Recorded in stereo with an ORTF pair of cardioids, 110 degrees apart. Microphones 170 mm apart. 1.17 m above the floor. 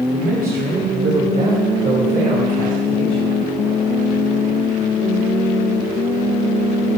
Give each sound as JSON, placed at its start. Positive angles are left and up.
{"t": 0.1, "sound": "a man speaking", "azimuth_deg": -60, "distance_m": 3.0}